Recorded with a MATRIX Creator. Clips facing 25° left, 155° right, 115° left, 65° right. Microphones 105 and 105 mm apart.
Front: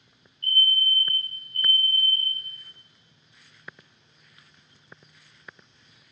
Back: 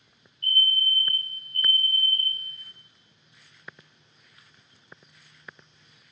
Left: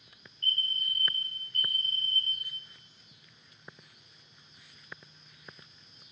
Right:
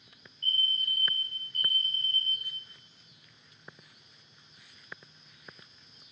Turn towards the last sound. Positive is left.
turn(degrees=-140)